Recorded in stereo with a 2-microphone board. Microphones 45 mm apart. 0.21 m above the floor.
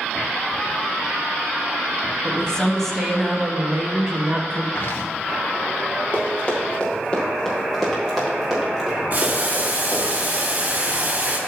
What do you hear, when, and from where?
2.2 s a woman speaking: 25° left (ahead or behind), 1.1 m; by 4.7 s 30° right (ahead or behind), 1.5 m
4.8 s footsteps: 55° left (ahead or behind), 2.0 m
6.1 s running footsteps: 35° left (ahead or behind), 4 m; by 10.1 s 15° right (ahead or behind), 6 m
9.1 s boiling: 40° right (ahead or behind), 2.5 m